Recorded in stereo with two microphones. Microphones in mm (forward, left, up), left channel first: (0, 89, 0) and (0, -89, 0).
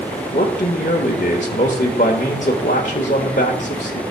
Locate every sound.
0.3 s a man speaking: 45° left (ahead or behind), 1.2 m